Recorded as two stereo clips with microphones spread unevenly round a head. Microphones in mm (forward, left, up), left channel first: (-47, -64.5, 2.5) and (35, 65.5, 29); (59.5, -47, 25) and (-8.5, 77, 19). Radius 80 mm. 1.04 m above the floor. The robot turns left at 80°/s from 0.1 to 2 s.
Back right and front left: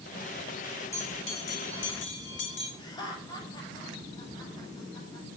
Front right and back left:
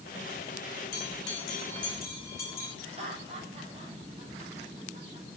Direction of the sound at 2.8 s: 175° left.